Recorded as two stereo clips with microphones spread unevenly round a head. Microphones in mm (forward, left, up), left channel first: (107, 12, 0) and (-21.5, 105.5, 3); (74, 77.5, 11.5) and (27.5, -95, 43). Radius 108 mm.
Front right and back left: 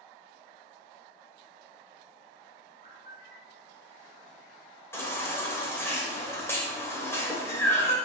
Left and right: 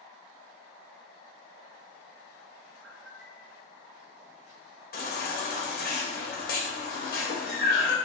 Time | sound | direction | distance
2.8 | a bird | 145° right | 0.8 m
4.9 | a baby crying | 40° left | 2 m